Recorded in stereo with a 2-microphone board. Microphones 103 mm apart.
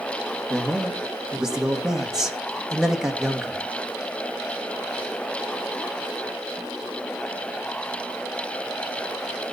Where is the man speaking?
5° right (ahead or behind), 2.0 m.